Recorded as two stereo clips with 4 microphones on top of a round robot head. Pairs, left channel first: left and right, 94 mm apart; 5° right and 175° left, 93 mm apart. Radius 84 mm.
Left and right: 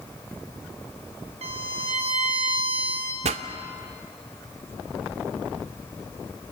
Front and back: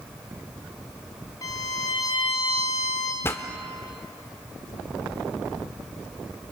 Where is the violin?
65° right, 4 m.